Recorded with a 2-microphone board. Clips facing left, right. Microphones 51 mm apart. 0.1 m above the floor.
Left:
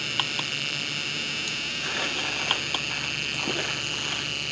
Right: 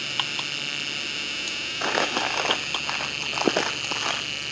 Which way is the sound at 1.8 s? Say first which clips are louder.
Right 7 dB; 70° right (ahead or behind).